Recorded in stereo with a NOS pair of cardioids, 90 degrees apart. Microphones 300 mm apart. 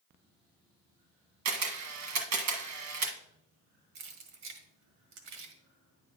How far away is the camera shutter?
About 1.6 m.